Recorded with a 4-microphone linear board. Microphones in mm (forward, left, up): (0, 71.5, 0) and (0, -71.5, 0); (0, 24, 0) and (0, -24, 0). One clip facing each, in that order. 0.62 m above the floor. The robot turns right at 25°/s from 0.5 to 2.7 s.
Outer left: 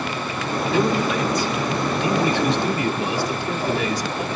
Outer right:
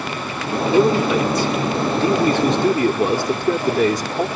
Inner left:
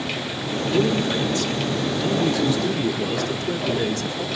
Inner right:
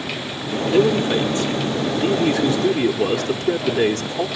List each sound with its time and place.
0.7 s a man speaking: 160° right, 1.4 m; by 4.3 s 110° right, 1.4 m